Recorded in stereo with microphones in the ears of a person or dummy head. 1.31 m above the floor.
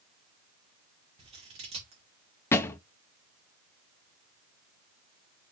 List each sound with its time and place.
1.2 s scissors: 35° right (ahead or behind), 2 m
2.5 s a thud: 15° left (ahead or behind), 0.6 m